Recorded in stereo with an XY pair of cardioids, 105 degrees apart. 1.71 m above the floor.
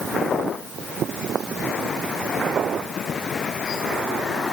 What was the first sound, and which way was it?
Only background noise.